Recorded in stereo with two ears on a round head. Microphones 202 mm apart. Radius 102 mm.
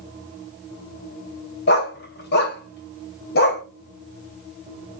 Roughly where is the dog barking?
Left.